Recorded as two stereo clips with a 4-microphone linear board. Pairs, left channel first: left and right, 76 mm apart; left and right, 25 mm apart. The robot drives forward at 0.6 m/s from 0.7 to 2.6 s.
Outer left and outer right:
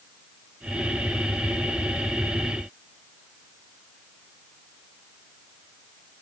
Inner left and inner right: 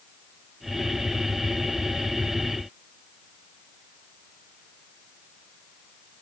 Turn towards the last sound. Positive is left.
No sound to turn to.